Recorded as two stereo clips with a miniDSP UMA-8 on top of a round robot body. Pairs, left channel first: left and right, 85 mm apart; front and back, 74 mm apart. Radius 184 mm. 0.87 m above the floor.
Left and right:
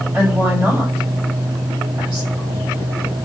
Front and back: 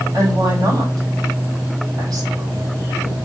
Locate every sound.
0.1 s a woman speaking: 165° right, 2.5 m